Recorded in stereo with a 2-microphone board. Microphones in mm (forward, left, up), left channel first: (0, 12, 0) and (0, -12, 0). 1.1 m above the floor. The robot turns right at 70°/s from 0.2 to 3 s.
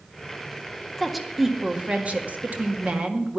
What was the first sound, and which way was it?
A woman speaking, 165° left.